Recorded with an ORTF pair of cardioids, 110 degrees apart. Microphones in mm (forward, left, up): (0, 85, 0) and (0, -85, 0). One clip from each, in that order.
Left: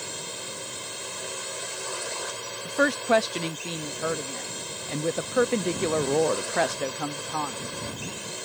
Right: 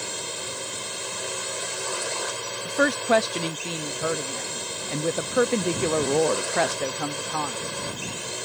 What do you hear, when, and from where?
0.0 s a drone: 25° right
2.6 s a woman speaking: 5° right